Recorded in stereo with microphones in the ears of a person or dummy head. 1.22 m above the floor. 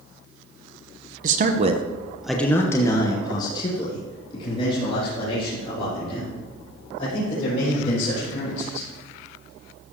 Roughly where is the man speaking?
Right.